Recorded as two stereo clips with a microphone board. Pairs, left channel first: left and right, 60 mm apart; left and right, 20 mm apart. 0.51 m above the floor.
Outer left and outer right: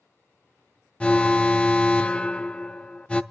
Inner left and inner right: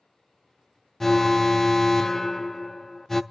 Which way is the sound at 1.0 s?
15° left (ahead or behind).